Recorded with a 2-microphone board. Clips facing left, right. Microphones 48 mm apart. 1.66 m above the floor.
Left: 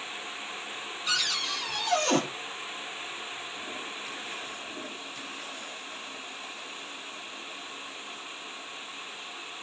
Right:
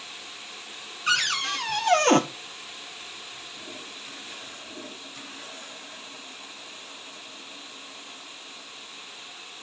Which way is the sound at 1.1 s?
50° right (ahead or behind).